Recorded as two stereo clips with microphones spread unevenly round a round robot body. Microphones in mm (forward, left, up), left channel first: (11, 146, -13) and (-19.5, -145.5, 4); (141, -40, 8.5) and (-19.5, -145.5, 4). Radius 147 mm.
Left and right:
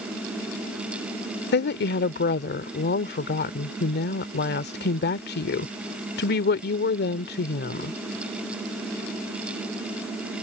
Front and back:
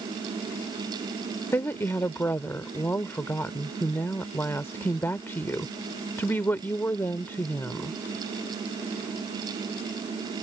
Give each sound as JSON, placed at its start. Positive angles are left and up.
{"t": 1.5, "sound": "a woman speaking", "azimuth_deg": 110}